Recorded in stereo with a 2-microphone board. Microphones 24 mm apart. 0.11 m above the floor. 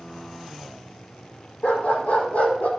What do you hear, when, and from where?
1.6 s a dog barking: 65° left (ahead or behind), 1.8 m; by 2.7 s 75° left (ahead or behind), 1.7 m